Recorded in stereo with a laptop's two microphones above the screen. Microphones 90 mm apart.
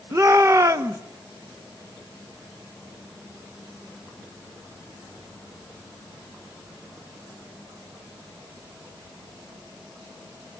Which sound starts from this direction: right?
A shout, at 0.1 s.